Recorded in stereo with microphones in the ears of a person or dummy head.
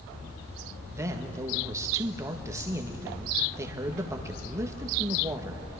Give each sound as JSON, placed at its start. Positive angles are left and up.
{"t": 0.9, "sound": "a man speaking", "side_deg": -20, "distance_m": 1.5}